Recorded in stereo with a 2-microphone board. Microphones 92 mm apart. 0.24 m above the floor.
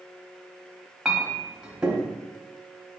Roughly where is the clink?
Centre.